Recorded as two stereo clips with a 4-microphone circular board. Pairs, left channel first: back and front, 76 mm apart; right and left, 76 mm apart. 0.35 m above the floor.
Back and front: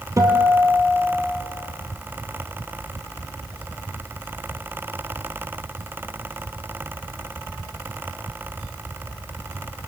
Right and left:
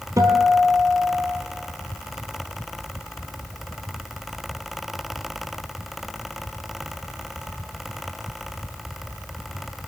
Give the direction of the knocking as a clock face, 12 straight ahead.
No knocking in this recording.